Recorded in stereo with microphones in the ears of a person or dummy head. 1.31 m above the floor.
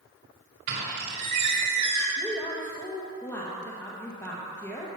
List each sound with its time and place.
0.7 s a squeak: 65° right (ahead or behind), 1.9 m
2.2 s a woman speaking: 15° left (ahead or behind), 1.4 m